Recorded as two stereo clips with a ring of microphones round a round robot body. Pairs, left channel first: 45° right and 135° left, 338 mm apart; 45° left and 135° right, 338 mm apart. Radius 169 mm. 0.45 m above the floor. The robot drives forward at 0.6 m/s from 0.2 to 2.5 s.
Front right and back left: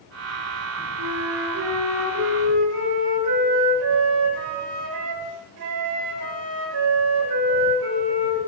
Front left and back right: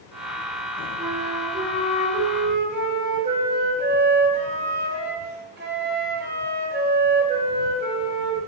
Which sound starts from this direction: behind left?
A flute, at 1.0 s.